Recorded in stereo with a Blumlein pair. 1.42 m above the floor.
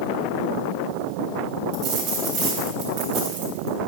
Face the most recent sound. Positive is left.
turn(degrees=-45)